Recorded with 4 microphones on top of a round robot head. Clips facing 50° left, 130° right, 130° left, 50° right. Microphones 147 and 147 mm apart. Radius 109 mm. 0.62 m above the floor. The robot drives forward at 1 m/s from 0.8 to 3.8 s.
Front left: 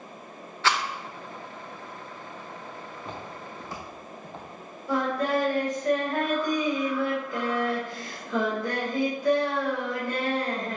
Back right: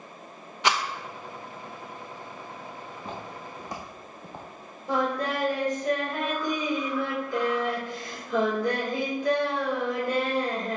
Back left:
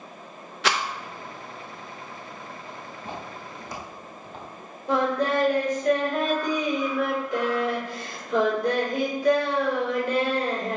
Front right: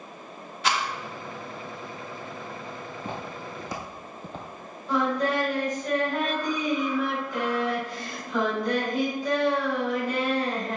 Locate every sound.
0.6 s a rattle: 155° left, 0.6 m
3.0 s footsteps: 45° right, 3 m
4.9 s singing: 160° left, 3.5 m